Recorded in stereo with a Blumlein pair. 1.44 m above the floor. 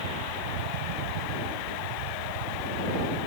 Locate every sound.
0.0 s a fan: 50° right